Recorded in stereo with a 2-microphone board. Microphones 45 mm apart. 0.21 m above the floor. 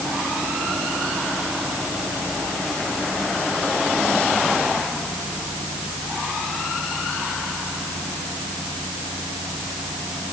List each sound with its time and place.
Only background noise.